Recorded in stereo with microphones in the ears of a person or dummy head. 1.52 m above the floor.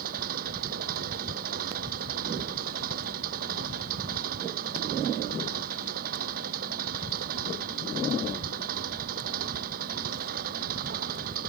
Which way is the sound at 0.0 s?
50° right (ahead or behind).